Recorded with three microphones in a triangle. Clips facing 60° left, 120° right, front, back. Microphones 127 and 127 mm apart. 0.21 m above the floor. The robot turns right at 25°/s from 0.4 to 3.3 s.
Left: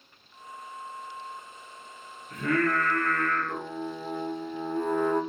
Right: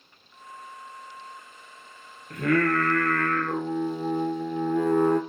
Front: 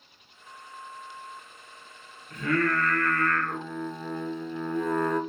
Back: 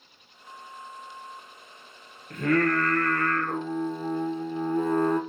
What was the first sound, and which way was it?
Singing, 145° right.